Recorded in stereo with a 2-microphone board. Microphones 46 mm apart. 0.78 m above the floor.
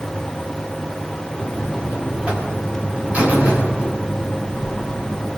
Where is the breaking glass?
I don't hear breaking glass.